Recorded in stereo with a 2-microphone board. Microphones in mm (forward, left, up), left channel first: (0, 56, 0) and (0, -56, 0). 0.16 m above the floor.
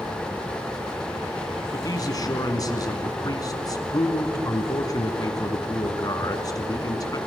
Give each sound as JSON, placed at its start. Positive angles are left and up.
{"t": 1.7, "sound": "a man speaking", "side_deg": 35, "distance_m": 1.8}